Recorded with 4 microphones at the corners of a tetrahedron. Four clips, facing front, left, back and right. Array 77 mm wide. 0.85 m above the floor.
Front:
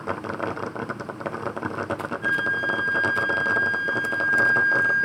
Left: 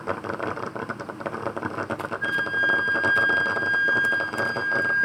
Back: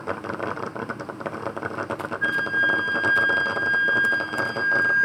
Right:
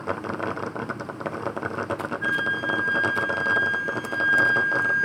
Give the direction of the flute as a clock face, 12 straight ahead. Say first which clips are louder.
Left 2 dB, back 2 dB; 6 o'clock.